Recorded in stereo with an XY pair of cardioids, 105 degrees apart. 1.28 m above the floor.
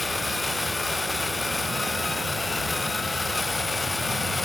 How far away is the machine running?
About 0.9 m.